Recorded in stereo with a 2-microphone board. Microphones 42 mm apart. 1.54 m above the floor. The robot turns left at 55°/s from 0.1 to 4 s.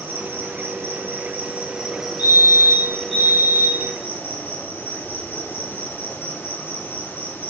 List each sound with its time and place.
0.0 s an insect: 60° right, 5 m; by 7.5 s 85° left, 5 m
2.2 s a fire alarm: 125° right, 6 m; by 3.9 s 140° left, 6 m